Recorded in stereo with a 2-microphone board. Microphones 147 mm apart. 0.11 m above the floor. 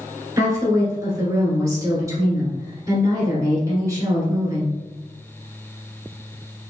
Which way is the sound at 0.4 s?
20° right (ahead or behind).